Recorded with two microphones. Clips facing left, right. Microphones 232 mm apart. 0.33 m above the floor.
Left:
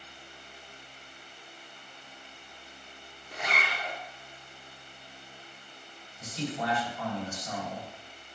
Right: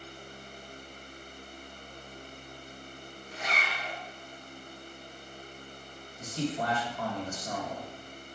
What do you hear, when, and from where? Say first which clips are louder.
3.3 s a zipper: left 2 dB; 70° left (ahead or behind), 1.1 m
6.2 s a man speaking: right 2 dB; 55° right (ahead or behind), 2.5 m